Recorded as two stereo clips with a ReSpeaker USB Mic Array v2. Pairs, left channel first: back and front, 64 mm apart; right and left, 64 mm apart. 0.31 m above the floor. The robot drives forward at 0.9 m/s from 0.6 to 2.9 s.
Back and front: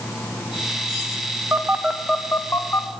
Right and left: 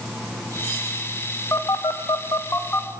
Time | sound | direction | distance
1.5 | a phone buzzing | 50° right | 0.7 m